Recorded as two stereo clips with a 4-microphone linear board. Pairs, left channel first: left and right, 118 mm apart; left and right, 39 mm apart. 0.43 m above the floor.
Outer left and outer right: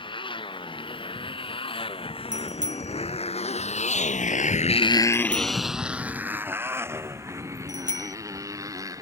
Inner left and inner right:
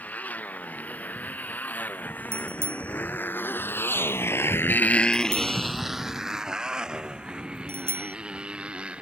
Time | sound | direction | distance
0.0 | a motorcycle | 40° left (ahead or behind) | ?
2.3 | a bicycle bell | 80° right | ?